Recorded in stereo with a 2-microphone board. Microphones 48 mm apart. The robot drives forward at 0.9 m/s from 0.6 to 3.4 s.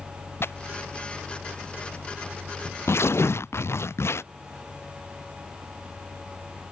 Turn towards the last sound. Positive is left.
turn(degrees=65)  # may be behind; listen again after turning